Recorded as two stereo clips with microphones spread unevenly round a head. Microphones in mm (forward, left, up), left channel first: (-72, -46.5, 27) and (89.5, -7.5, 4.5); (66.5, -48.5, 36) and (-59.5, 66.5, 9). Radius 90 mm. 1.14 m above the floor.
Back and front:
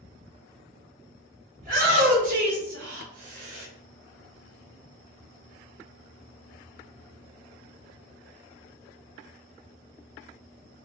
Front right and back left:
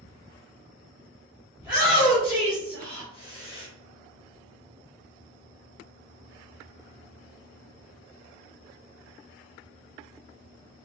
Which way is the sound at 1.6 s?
60° left.